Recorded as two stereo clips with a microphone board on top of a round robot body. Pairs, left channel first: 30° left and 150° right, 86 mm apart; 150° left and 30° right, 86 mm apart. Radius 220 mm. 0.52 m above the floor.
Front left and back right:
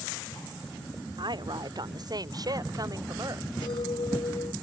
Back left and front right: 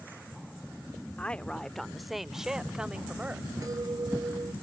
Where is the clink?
15° left.